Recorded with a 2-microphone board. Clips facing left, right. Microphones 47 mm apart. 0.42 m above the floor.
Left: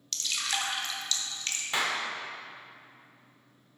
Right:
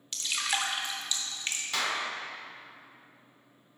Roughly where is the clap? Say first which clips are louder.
Left 2 dB; left.